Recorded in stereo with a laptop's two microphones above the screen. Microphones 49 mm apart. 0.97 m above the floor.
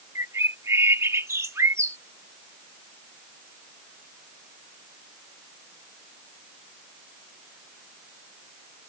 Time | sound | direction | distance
0.1 | a bird | 80° right | ?